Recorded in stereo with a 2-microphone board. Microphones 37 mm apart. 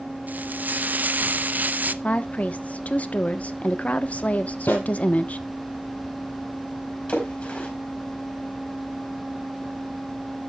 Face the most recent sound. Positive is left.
turn(degrees=35)  # may be behind; listen again after turning